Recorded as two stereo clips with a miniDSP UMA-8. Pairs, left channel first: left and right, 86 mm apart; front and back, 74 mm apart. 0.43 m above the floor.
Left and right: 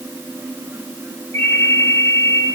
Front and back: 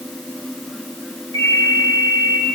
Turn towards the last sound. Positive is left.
turn(degrees=35)